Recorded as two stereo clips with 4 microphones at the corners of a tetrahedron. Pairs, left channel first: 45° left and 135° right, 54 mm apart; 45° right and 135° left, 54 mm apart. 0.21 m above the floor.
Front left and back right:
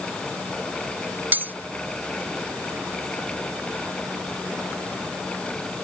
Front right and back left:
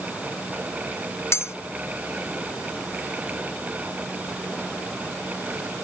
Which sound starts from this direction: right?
Cutlery clinking, at 1.3 s.